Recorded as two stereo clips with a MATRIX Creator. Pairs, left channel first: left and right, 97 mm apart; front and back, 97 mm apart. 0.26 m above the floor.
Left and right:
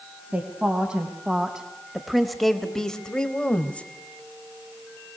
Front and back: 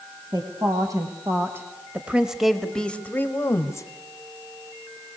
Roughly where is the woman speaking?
Behind.